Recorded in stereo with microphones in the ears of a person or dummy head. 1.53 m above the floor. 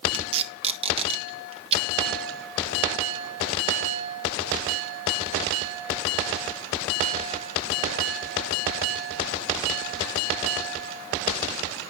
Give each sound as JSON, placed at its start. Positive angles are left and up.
{"t": 0.1, "sound": "tape being pulled", "side_deg": -35, "distance_m": 1.6}